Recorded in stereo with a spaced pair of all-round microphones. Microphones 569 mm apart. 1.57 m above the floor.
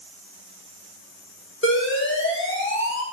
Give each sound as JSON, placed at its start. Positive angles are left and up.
{"t": 1.6, "sound": "an alarm", "side_deg": 20, "distance_m": 1.7}